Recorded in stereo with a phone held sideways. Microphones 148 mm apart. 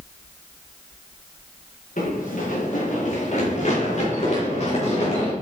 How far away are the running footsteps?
About 4 m.